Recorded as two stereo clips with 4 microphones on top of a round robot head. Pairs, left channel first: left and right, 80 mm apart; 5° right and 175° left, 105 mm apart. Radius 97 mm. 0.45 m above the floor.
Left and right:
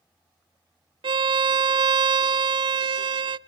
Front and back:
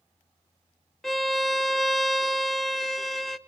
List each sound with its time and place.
1.0 s a violin: 90° right, 0.6 m